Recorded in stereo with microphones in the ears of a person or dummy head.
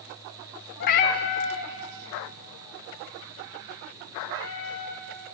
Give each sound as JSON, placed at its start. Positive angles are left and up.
{"t": 0.8, "sound": "a cat meowing", "side_deg": 30, "distance_m": 0.6}